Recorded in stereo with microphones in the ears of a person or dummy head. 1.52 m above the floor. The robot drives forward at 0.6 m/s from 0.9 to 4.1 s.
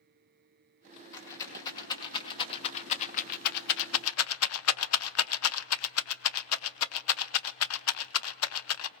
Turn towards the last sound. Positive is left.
turn(degrees=80)